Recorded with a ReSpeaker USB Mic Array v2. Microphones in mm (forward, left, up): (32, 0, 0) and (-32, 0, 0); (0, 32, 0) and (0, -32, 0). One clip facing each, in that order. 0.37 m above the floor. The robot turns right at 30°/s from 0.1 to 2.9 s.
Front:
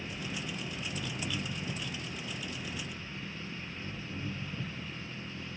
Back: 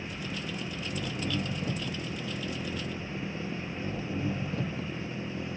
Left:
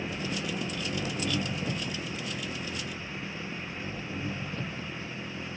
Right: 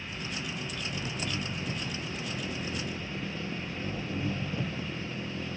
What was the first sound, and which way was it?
An engine running, 105° left.